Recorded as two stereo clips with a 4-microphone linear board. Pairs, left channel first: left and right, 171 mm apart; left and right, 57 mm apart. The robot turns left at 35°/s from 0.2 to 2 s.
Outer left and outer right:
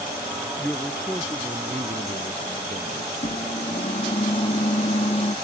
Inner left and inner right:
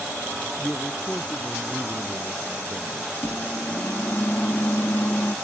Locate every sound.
0.6 s a man speaking: 5° left; by 3.0 s 45° right
3.1 s a microwave: 35° left (ahead or behind)